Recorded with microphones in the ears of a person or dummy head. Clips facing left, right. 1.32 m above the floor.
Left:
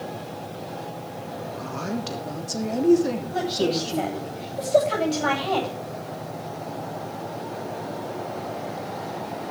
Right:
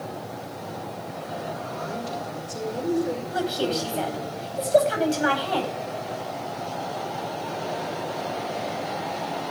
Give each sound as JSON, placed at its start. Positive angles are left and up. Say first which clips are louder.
{"t": 1.6, "sound": "a woman speaking", "louder": "left 2 dB", "side_deg": 80, "distance_m": 3.0}
{"t": 3.3, "sound": "a woman speaking", "louder": "left 2 dB", "side_deg": -10, "distance_m": 9.5}